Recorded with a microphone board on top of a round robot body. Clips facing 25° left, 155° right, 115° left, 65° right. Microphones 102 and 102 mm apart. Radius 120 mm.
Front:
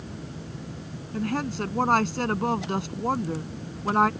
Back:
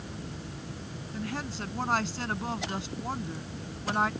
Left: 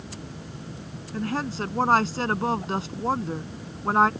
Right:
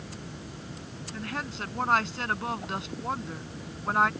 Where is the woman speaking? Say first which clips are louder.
Front 8 dB, left 8 dB; 55° left.